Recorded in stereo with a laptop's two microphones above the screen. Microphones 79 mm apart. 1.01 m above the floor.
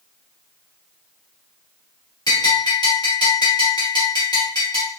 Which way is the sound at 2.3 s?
60° left (ahead or behind).